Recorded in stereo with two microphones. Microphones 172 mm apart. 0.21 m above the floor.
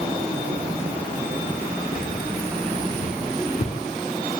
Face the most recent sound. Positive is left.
turn(degrees=70)  # may be behind; listen again after turning